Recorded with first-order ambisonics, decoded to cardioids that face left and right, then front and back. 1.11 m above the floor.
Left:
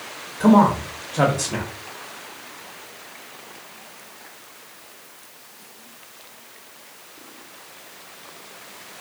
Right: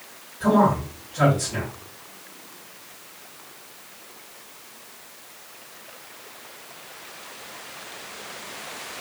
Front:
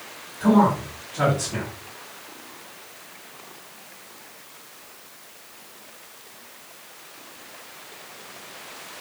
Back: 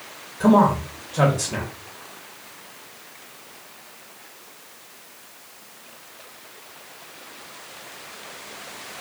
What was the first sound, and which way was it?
A man speaking, 125° left.